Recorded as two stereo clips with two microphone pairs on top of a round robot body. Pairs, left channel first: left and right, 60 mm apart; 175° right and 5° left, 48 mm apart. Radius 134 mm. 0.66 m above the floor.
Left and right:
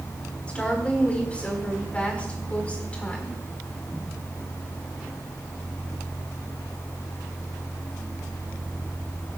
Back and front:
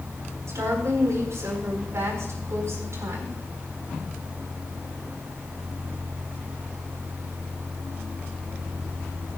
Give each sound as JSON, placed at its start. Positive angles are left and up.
{"t": 0.5, "sound": "a woman speaking", "azimuth_deg": 20, "distance_m": 4.5}